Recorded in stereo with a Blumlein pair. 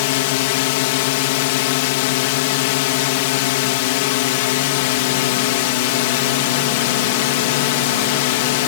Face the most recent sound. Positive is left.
turn(degrees=50)